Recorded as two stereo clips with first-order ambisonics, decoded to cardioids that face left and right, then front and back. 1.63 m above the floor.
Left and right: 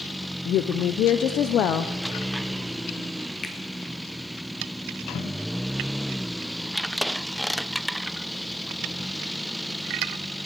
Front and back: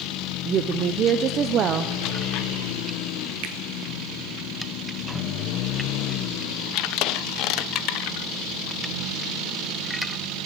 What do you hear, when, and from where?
0.5 s a woman speaking: 130° left, 0.6 m
3.4 s a finger snap: 155° left, 1.3 m